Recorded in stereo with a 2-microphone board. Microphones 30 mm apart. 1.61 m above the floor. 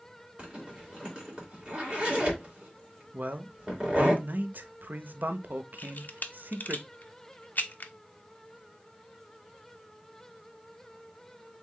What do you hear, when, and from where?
0.4 s a zipper: 30° right (ahead or behind), 2 m
3.1 s a man speaking: 70° right (ahead or behind), 0.6 m
5.8 s a camera shutter: 65° left (ahead or behind), 0.5 m